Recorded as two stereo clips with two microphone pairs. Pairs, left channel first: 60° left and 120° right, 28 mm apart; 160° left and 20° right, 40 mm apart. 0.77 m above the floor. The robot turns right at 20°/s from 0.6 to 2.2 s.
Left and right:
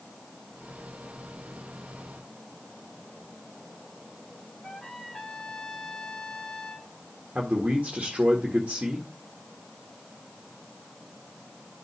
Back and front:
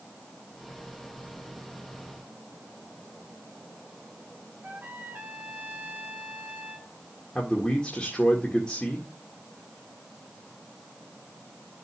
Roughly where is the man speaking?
Behind right.